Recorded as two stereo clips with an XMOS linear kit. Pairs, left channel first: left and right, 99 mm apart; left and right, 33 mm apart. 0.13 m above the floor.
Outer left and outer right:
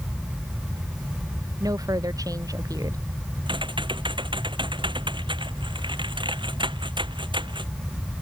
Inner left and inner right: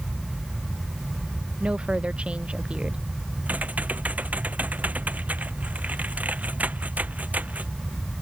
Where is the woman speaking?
35° right (ahead or behind).